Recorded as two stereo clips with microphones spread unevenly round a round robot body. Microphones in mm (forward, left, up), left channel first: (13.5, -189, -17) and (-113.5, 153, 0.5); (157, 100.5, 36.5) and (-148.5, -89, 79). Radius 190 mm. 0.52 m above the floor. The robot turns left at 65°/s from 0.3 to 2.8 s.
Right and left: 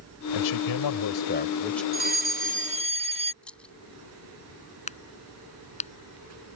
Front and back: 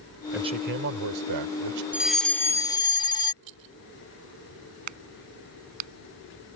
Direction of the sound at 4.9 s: 140° right.